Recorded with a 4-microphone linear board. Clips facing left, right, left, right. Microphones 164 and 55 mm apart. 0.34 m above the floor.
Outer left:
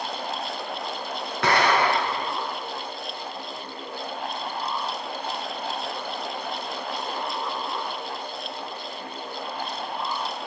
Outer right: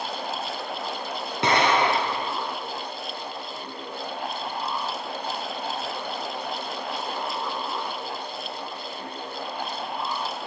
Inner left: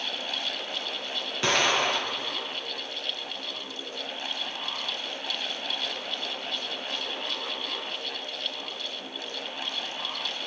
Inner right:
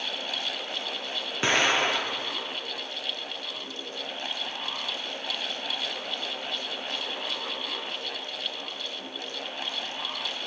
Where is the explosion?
20° right (ahead or behind), 5 m.